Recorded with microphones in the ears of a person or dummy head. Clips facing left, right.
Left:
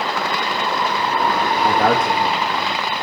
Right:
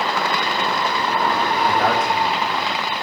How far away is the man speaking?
About 1.4 m.